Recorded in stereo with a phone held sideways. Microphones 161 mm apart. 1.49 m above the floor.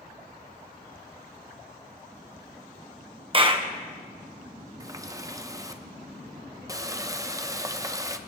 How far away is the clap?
About 1.2 m.